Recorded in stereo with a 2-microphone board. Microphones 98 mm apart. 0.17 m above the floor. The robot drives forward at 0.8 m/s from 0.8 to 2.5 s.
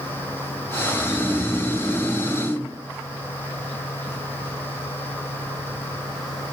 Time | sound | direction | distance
0.9 | snoring | centre (ahead or behind) | 2.5 m